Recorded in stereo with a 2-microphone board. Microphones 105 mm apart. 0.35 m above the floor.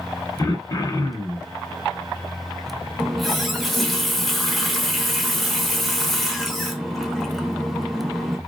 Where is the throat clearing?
35° left (ahead or behind), 0.5 m.